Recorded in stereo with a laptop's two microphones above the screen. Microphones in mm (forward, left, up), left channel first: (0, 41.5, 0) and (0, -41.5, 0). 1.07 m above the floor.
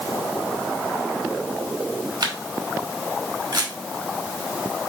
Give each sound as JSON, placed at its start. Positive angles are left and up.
{"t": 2.2, "sound": "a camera shutter", "side_deg": -60, "distance_m": 2.5}